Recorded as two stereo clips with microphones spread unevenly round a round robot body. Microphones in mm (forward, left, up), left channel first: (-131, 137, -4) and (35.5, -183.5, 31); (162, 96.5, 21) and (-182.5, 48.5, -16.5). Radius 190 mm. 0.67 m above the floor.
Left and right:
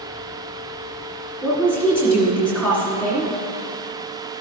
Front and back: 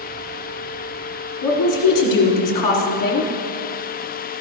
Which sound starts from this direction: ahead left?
A woman speaking, at 1.4 s.